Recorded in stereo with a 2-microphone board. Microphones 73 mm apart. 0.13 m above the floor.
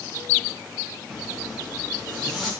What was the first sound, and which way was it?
A zipper, centre (ahead or behind).